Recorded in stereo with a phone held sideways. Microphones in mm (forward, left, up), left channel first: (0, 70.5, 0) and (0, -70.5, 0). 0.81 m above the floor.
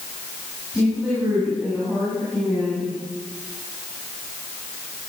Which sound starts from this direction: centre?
A woman speaking, at 0.7 s.